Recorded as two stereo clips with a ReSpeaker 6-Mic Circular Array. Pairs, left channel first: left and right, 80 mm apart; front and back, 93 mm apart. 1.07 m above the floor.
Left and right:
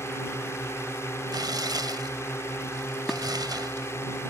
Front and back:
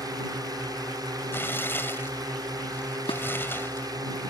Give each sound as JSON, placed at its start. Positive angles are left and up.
{"t": 0.0, "sound": "a drone", "azimuth_deg": 140}
{"t": 1.3, "sound": "tearing paper", "azimuth_deg": -65}
{"t": 3.1, "sound": "dishes clattering", "azimuth_deg": 0}